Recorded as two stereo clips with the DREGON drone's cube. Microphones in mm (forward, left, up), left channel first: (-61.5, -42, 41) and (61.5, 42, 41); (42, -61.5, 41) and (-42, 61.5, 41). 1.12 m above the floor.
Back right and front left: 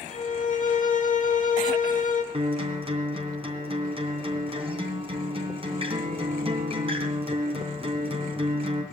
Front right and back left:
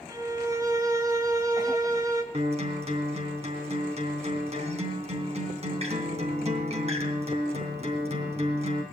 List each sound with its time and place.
0.1 s a violin: 170° right, 1.9 m
2.3 s a guitar: 85° left, 3 m